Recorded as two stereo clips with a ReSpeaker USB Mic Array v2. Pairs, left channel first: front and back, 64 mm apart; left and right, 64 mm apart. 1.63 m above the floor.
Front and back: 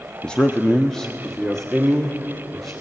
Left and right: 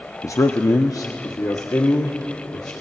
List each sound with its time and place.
0.2 s a man speaking: 75° left, 0.6 m; by 2.7 s 85° left, 1.8 m